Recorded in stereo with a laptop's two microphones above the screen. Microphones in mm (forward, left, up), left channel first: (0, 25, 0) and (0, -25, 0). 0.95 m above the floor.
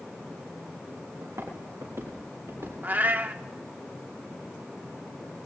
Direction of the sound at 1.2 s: 75° right (ahead or behind).